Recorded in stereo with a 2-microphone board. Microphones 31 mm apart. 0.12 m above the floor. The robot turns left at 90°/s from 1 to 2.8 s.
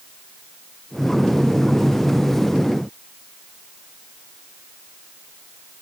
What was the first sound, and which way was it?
Only background noise.